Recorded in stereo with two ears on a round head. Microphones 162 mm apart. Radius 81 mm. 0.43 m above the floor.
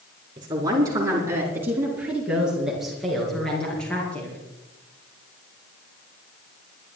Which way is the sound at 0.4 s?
25° right (ahead or behind).